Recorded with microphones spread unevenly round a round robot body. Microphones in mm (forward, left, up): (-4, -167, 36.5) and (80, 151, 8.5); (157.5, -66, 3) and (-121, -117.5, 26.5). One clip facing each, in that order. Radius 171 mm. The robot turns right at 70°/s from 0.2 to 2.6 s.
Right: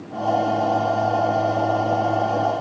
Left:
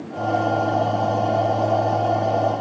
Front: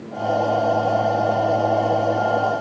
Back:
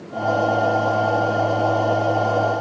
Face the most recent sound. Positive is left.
No sound to turn to.